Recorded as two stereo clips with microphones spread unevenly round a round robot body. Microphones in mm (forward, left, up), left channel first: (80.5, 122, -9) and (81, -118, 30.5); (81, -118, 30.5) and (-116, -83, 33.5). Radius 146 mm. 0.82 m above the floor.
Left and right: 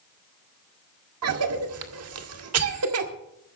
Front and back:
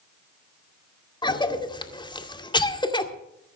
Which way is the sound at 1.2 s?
75° right.